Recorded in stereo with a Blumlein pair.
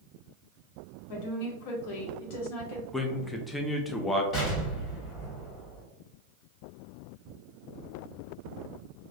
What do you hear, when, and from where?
1.1 s a woman speaking: 45° left, 1.0 m
2.9 s a man speaking: 10° left, 0.5 m
4.3 s an explosion: 25° left, 1.7 m